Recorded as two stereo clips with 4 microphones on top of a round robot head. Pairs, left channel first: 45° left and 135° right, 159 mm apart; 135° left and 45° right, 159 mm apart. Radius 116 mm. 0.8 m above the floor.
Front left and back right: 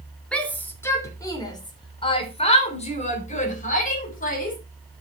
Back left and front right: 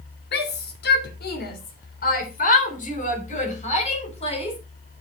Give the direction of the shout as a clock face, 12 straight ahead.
8 o'clock.